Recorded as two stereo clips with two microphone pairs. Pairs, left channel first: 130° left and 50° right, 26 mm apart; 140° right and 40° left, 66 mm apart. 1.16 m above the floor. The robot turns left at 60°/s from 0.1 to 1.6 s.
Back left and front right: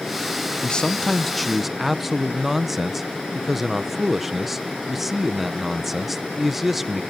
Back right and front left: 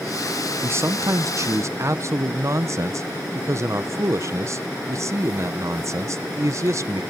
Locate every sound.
0.6 s a man speaking: 85° left, 0.8 m; by 7.0 s 25° left, 0.8 m